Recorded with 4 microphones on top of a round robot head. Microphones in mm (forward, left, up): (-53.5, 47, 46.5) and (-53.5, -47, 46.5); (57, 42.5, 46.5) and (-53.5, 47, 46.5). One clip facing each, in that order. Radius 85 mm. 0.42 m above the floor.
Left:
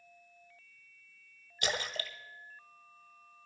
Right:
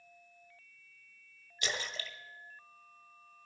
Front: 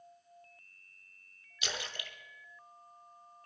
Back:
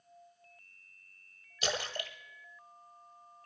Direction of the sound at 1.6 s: 130° left.